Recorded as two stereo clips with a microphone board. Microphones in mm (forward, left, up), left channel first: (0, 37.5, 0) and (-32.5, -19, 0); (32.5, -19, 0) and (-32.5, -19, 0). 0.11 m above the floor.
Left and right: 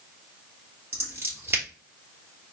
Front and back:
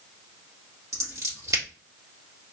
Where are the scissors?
165° right, 2.5 m.